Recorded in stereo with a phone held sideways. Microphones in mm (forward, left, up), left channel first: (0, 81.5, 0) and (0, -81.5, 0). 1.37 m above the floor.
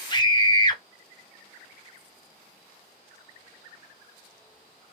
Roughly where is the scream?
Left.